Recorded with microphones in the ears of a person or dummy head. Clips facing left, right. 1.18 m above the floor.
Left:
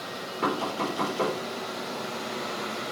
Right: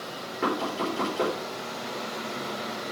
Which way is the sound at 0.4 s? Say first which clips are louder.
Right 1 dB; 10° right (ahead or behind).